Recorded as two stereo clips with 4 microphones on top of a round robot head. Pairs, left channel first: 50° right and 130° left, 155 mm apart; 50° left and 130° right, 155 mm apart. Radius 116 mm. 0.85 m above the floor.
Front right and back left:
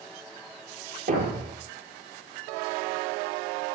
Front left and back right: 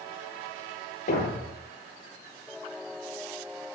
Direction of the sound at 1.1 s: 90° left.